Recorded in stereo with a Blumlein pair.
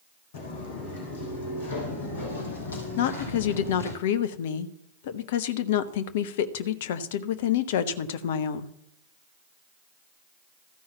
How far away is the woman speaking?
About 0.7 m.